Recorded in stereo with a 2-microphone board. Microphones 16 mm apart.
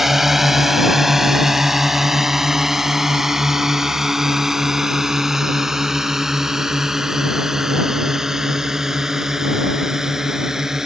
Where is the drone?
10° right (ahead or behind); by 10.9 s 20° right (ahead or behind).